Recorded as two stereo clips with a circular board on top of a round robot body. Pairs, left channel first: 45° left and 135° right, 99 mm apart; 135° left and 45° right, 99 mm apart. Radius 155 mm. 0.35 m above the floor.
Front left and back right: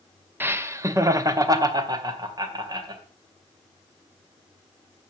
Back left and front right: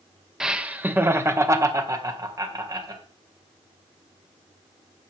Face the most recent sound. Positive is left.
turn(degrees=-90)